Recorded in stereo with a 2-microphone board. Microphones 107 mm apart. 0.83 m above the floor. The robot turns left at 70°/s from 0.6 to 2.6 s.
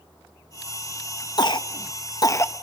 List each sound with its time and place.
1.4 s a cough: 40° left (ahead or behind), 0.7 m; by 2.5 s 20° left (ahead or behind), 0.7 m